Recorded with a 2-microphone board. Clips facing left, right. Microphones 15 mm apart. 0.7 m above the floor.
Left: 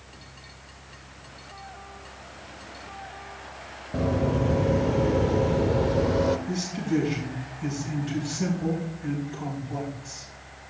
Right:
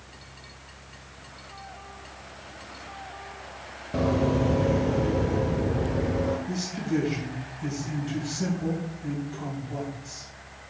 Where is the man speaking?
10° left (ahead or behind), 4.5 m.